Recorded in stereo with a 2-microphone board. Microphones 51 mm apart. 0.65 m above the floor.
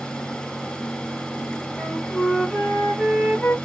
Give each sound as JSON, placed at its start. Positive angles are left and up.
{"t": 1.8, "sound": "a flute", "side_deg": 25, "distance_m": 1.7}